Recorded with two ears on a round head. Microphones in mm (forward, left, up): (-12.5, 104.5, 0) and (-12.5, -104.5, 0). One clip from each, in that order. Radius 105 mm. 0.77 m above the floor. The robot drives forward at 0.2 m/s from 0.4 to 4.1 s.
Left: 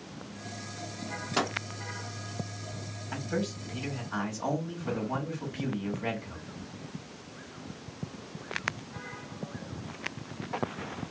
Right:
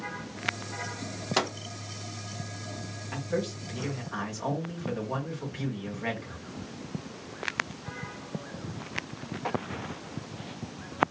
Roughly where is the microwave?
Right.